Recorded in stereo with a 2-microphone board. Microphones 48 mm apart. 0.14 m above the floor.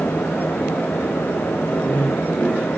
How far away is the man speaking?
About 4 m.